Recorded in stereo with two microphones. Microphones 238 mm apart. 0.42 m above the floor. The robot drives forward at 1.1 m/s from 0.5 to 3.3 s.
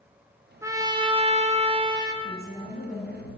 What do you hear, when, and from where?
0.6 s a trumpet: 15° right (ahead or behind), 1.1 m
2.2 s a woman speaking: 40° left (ahead or behind), 3 m; by 3.3 s 30° left (ahead or behind), 3.5 m